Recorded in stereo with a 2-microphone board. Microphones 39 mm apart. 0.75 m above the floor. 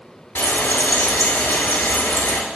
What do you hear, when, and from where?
0.3 s frying: 65° left (ahead or behind), 6 m